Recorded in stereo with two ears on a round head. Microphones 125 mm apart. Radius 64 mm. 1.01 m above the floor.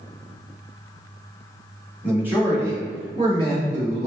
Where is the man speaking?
10° right (ahead or behind), 1.8 m; by 4.1 s 50° right (ahead or behind), 2 m.